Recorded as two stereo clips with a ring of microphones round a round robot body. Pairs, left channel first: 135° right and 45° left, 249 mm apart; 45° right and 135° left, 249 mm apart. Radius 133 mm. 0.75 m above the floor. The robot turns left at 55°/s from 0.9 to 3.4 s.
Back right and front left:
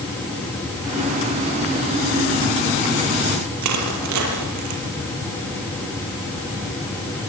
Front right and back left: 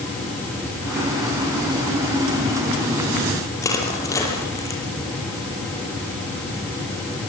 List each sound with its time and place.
3.6 s crushing: 35° left, 6 m